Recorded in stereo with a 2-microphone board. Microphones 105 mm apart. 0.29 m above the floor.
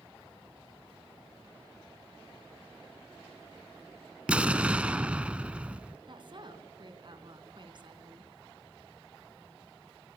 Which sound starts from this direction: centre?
An explosion, at 4.3 s.